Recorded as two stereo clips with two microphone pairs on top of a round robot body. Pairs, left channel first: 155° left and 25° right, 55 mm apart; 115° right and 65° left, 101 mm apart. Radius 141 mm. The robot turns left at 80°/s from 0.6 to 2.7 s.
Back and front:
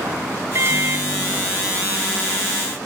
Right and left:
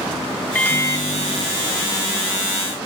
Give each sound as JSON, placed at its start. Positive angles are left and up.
{"t": 0.6, "sound": "a microwave", "azimuth_deg": -50}